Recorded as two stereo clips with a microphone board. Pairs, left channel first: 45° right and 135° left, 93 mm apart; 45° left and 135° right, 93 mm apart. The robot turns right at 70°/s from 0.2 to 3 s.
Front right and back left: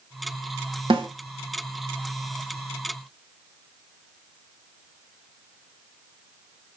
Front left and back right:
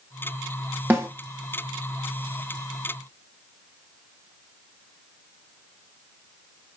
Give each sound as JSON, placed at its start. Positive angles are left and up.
{"t": 0.9, "sound": "a snare drum", "azimuth_deg": 155, "distance_m": 1.1}